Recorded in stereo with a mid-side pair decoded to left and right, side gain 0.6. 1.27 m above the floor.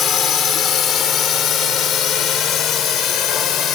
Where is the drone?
45° left; by 3.8 s 55° left.